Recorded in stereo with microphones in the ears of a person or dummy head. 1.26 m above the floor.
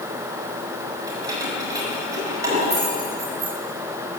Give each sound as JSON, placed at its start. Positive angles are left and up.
{"t": 1.1, "sound": "keys jangling", "side_deg": -20, "distance_m": 5.5}